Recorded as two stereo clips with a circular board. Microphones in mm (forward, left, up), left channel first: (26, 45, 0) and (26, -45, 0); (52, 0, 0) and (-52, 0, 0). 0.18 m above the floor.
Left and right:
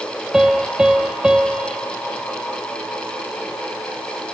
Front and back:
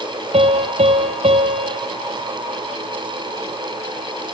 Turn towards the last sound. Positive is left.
turn(degrees=-170)